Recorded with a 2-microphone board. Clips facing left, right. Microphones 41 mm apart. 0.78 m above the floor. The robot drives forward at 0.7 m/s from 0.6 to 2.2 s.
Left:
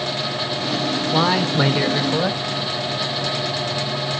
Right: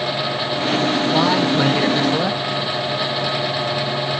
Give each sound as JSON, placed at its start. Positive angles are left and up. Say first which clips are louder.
{"t": 1.1, "sound": "a man speaking", "louder": "even", "side_deg": 10, "distance_m": 1.7}